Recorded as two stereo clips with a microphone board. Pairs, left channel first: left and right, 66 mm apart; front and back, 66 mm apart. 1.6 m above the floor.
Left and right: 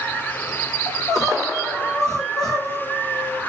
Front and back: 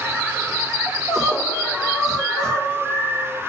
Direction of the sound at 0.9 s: 90° left.